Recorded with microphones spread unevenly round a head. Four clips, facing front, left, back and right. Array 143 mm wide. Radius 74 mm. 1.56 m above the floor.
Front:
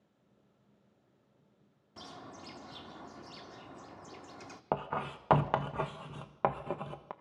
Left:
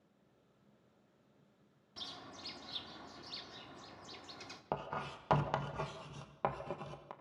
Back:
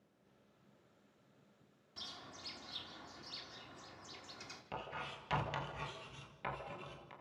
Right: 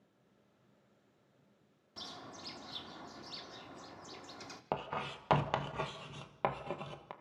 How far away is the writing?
About 1.4 m.